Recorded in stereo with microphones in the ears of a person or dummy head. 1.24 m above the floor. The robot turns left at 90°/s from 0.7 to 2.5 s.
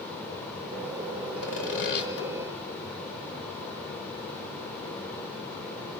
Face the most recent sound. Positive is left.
turn(degrees=15)